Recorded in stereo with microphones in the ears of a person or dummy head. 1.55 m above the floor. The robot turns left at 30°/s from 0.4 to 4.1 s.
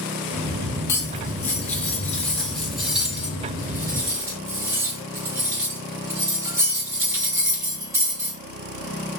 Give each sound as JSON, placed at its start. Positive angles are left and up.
{"t": 0.9, "sound": "cutlery clinking", "side_deg": 15, "distance_m": 0.7}